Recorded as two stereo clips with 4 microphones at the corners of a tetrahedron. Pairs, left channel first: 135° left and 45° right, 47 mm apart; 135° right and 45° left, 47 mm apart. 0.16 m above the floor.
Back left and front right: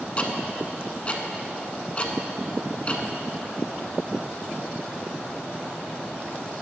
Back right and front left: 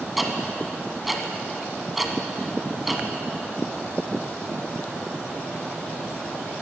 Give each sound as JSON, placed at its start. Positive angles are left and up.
{"t": 0.2, "sound": "ticking", "azimuth_deg": 130, "distance_m": 1.2}